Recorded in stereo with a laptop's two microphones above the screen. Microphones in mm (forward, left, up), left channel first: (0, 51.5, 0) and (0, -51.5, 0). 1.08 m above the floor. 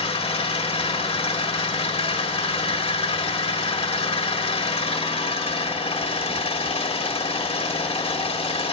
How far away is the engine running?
About 1.4 m.